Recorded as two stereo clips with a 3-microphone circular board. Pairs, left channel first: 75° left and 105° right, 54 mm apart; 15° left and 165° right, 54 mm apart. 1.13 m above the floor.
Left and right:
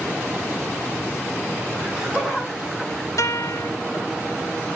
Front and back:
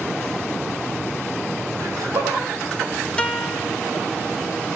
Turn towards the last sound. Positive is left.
turn(degrees=85)